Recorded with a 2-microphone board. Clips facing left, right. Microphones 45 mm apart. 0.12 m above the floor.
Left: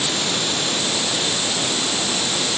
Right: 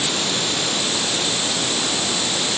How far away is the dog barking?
I don't hear a dog barking.